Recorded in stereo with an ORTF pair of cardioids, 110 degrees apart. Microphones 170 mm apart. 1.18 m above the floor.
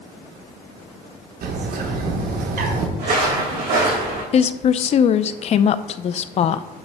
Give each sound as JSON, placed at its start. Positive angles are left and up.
{"t": 1.4, "sound": "a bird", "azimuth_deg": -60, "distance_m": 1.3}
{"t": 3.0, "sound": "footsteps", "azimuth_deg": -60, "distance_m": 4.5}
{"t": 4.3, "sound": "a woman speaking", "azimuth_deg": 40, "distance_m": 0.5}